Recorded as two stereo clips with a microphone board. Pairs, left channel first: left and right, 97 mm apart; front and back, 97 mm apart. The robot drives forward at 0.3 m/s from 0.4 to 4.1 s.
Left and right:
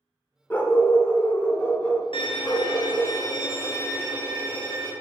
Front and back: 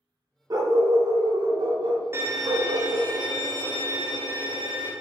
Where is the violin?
120° left, 0.6 m; by 4.9 s 150° left, 1.0 m.